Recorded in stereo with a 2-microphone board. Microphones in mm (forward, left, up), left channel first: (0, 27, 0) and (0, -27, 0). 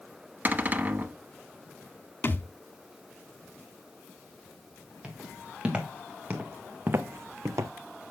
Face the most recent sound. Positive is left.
turn(degrees=-65)  # may be behind; listen again after turning